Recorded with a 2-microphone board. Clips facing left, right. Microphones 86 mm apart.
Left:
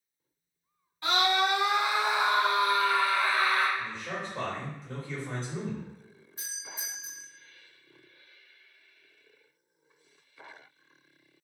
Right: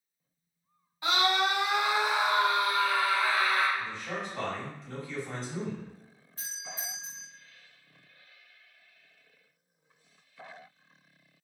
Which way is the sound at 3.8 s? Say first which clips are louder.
Even; 20° left (ahead or behind).